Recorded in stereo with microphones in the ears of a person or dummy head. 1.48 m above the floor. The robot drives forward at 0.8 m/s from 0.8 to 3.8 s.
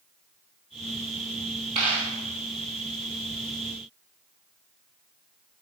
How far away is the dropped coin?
About 3 m.